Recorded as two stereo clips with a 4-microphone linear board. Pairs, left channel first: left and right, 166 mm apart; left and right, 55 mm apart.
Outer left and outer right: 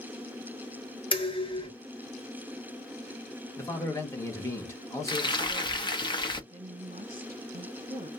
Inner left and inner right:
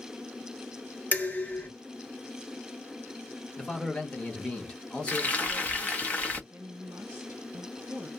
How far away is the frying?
About 0.9 m.